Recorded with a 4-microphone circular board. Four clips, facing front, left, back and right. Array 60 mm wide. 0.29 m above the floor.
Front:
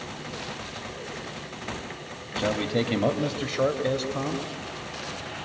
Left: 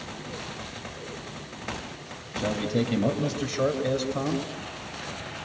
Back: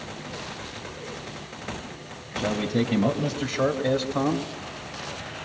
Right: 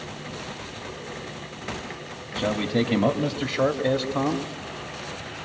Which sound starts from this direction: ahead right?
A man speaking, at 2.4 s.